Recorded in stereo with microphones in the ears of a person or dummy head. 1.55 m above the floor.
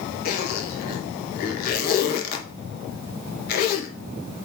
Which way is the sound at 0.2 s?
50° left (ahead or behind).